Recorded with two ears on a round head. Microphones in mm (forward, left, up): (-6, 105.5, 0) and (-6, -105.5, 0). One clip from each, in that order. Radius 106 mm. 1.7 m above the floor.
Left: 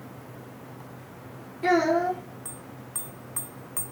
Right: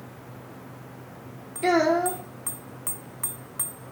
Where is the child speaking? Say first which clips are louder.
Right 1 dB; 40° right (ahead or behind), 2.5 m.